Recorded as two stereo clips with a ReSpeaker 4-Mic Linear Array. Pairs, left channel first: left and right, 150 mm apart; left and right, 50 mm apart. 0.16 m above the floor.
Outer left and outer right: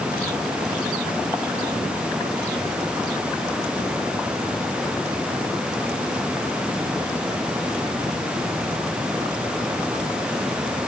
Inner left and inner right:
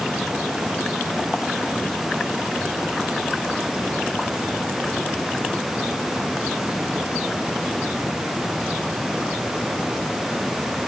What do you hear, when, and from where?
Only background noise.